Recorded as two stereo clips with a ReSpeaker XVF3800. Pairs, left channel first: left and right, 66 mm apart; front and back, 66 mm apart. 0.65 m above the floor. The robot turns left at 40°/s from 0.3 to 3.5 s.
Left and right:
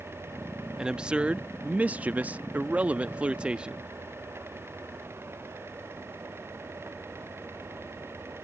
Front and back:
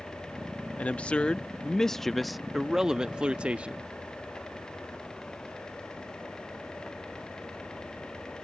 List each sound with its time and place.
0.8 s a man speaking: 30° right; by 3.9 s 135° right